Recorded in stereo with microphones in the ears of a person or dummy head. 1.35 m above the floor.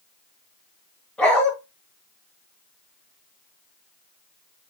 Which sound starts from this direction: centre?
A dog barking, at 1.2 s.